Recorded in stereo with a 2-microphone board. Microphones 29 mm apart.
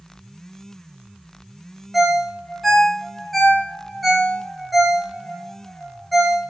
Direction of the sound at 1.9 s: Centre (ahead or behind).